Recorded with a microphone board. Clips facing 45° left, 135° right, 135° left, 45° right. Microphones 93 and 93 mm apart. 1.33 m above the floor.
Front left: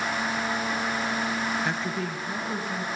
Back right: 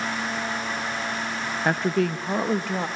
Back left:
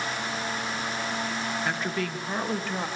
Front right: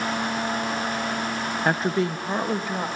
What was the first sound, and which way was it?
A woman speaking, 90° right.